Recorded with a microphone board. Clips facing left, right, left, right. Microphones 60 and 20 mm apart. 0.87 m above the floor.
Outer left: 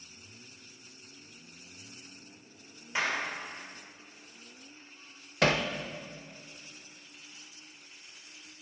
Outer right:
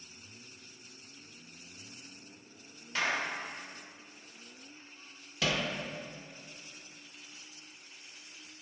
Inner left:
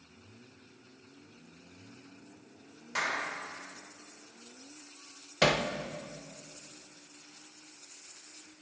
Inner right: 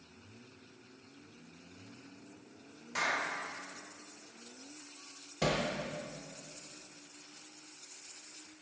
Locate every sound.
3.0 s a clap: 20° left (ahead or behind), 3 m
5.4 s hammering: 50° left (ahead or behind), 0.6 m